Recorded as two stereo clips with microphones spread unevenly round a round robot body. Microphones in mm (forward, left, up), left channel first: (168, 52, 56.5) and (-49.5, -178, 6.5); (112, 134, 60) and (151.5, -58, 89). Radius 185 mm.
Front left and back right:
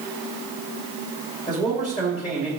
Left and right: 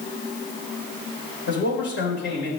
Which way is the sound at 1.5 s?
125° left.